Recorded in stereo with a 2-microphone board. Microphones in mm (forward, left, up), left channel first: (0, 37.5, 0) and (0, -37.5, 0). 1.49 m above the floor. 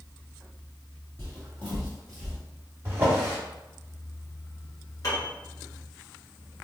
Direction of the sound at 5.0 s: 45° left (ahead or behind).